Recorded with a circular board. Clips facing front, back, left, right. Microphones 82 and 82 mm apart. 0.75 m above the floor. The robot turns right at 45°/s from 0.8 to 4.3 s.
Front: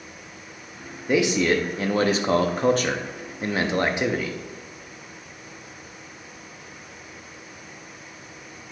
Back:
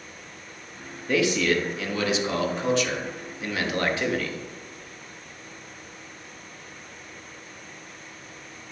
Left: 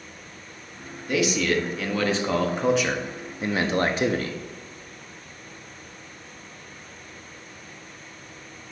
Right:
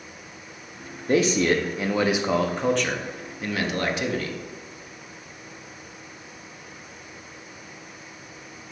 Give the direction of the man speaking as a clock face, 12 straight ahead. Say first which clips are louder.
Front 2 dB, right 3 dB; 2 o'clock.